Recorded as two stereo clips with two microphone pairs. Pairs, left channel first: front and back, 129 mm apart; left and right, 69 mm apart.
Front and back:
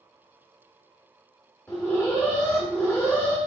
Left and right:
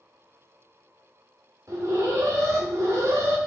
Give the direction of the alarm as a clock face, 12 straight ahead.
2 o'clock.